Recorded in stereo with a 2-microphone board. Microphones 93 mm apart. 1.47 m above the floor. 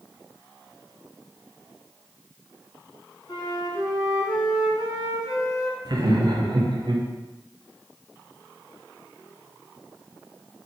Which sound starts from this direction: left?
A flute, at 3.3 s.